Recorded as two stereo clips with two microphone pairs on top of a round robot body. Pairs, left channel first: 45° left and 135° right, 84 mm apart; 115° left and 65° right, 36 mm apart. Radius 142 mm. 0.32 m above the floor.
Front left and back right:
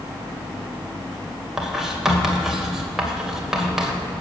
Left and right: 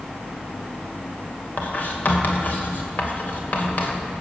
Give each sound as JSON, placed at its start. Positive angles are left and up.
{"t": 1.6, "sound": "writing", "azimuth_deg": 145, "distance_m": 2.5}